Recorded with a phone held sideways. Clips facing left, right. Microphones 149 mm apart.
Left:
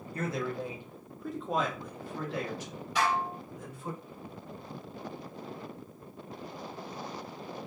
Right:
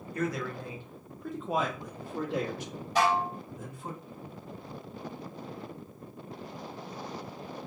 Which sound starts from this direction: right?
Dishes clattering, at 3.0 s.